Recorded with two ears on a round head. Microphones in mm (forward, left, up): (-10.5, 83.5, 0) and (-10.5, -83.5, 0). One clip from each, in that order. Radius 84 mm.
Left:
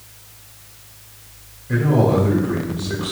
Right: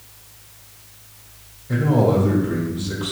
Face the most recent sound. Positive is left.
turn(degrees=-5)  # may be behind; listen again after turning